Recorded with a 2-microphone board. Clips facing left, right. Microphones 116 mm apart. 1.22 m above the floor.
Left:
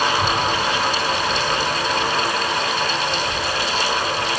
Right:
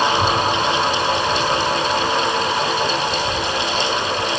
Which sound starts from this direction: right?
A child speaking, at 0.1 s.